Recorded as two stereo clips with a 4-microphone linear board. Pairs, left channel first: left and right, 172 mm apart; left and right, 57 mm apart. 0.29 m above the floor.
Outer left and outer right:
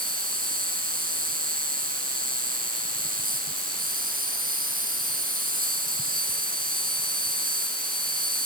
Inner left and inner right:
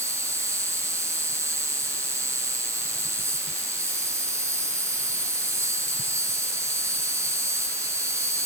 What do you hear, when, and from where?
0.0 s an insect: 60° right (ahead or behind)